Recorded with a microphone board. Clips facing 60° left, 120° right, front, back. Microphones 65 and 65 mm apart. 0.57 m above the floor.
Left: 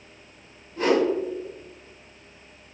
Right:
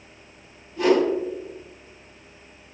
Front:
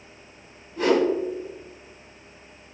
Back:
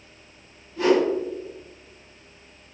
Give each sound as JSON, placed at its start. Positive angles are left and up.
{"t": 0.8, "sound": "a whoosh", "azimuth_deg": 45, "distance_m": 1.4}